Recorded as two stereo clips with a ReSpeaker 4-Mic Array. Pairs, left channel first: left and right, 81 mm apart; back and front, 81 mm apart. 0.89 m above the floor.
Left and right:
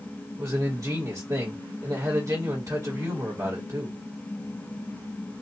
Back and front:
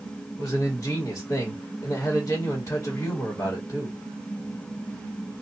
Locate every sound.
0.4 s a man speaking: 130° right, 1.6 m